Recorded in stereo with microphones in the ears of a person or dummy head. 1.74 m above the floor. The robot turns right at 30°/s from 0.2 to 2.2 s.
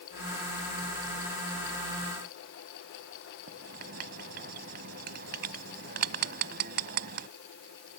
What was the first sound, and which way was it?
Writing, 60° right (ahead or behind).